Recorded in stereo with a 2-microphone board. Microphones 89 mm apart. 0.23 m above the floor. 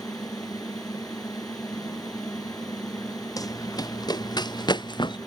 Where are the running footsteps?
45° left (ahead or behind); by 5.2 s 60° left (ahead or behind).